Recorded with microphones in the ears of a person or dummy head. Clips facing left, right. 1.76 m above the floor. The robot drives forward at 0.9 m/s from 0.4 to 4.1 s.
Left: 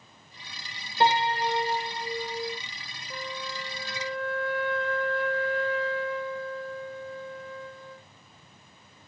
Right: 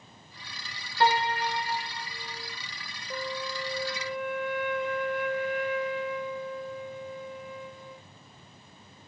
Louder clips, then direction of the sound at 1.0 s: Left 1 dB; 25° left (ahead or behind).